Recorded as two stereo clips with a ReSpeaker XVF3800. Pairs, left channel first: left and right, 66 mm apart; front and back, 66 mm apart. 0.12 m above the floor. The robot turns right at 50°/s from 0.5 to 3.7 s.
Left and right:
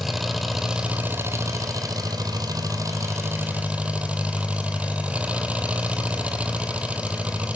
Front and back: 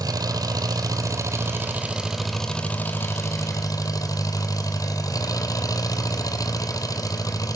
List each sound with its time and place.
0.0 s an engine running: straight behind, 1.8 m; by 7.6 s 20° right, 1.8 m